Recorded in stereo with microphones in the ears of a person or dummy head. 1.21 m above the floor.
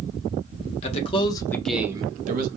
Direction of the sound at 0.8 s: 35° left (ahead or behind).